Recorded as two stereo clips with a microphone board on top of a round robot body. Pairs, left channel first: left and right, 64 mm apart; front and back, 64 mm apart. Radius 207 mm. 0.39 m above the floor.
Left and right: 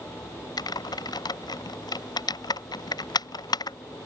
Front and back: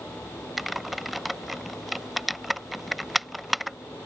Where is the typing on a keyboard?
90° left.